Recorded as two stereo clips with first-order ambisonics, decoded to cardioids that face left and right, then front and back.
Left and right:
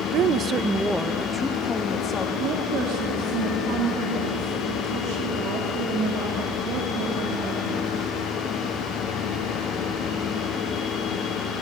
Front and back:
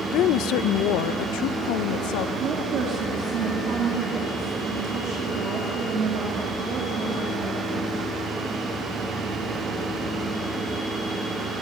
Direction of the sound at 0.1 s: 50° right.